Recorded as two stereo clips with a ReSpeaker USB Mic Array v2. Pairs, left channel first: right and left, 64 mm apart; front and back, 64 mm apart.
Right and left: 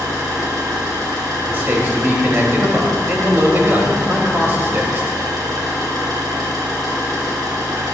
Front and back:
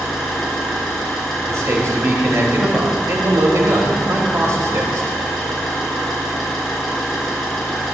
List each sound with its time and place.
0.0 s an engine running: 85° left, 4 m
1.5 s a man speaking: 145° left, 2.5 m